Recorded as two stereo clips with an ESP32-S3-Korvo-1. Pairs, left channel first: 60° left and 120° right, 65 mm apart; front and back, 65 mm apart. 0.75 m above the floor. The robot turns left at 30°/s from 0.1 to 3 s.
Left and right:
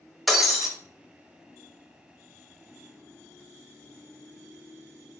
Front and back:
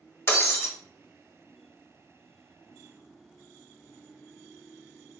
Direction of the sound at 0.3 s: 30° right.